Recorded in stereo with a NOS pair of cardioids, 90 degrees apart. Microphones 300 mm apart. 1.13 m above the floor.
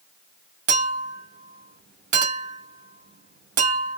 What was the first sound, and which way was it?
A clink, 55° right.